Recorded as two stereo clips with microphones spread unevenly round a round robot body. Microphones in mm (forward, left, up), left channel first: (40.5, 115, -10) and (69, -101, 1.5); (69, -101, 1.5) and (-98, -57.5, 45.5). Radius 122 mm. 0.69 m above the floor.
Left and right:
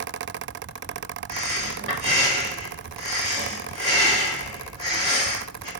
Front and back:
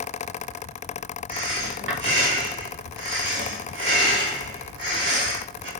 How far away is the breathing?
About 1.7 m.